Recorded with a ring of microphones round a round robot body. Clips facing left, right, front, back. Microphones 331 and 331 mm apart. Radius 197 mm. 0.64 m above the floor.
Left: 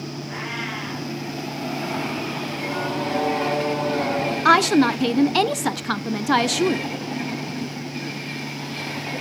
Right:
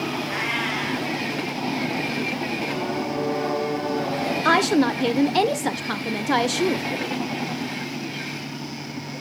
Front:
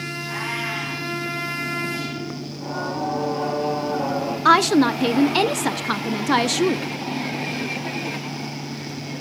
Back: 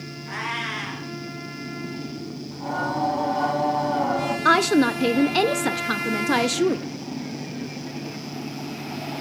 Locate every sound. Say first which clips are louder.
0.3 s a cat meowing: right 3 dB, front 4 dB; 135° right, 4 m
2.5 s singing: right 1 dB, back 3 dB; 125° left, 4 m
4.5 s a woman speaking: left 2 dB, front 2 dB; 65° left, 0.7 m